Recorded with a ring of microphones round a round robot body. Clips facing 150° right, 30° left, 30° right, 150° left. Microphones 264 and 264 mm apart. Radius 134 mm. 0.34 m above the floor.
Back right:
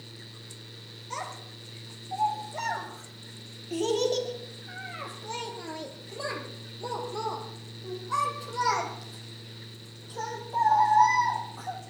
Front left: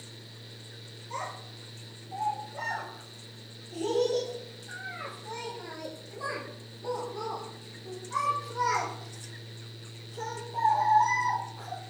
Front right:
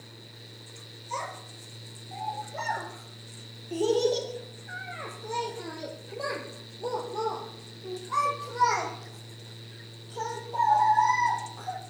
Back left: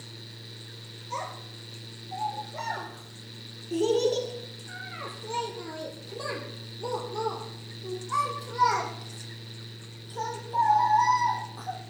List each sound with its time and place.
1.1 s a child speaking: 120° right, 5.5 m; by 11.8 s 160° right, 9 m